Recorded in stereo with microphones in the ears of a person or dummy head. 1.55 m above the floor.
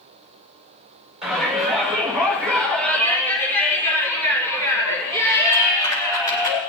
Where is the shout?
Centre (ahead or behind), 4.5 m; by 6.6 s 25° left (ahead or behind), 7.5 m.